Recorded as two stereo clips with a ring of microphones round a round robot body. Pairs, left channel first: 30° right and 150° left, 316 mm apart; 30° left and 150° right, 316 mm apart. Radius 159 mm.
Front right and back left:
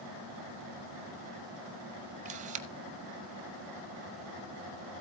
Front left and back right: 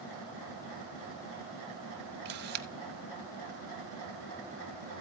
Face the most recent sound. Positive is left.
turn(degrees=-165)